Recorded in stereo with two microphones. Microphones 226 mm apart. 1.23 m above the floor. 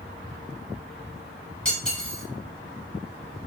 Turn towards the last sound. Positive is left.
turn(degrees=5)  # may be behind; listen again after turning